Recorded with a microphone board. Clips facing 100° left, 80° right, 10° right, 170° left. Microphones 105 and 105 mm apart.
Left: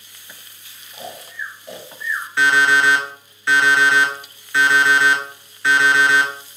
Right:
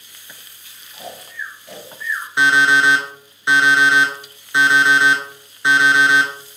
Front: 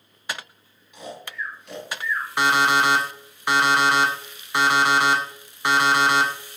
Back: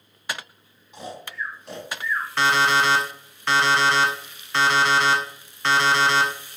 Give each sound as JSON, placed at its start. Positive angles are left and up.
{"t": 0.9, "sound": "snoring", "azimuth_deg": 150, "distance_m": 1.0}
{"t": 2.4, "sound": "an alarm clock", "azimuth_deg": -65, "distance_m": 0.5}